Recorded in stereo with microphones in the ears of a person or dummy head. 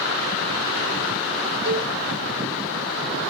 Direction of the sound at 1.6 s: 35° right (ahead or behind).